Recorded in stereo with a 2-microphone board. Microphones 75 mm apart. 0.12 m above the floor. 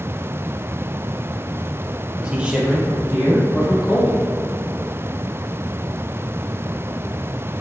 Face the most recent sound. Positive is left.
turn(degrees=-10)  # may be behind; listen again after turning